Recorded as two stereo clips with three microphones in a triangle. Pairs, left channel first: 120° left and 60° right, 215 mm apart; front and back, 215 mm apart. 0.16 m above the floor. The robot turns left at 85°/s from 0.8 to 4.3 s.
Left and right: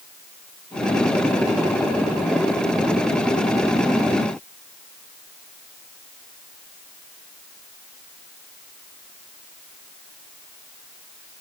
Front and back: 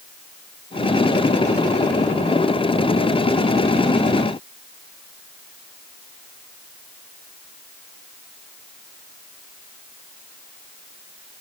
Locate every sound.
Only background noise.